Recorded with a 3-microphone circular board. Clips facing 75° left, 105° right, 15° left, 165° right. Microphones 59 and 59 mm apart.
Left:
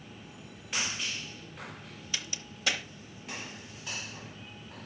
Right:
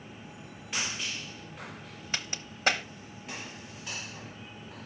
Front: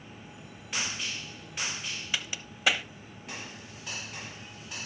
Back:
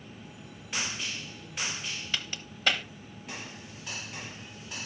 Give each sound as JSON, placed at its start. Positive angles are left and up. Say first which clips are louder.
{"t": 2.1, "sound": "a crack", "louder": "right 3 dB, front 2 dB", "azimuth_deg": -65, "distance_m": 0.7}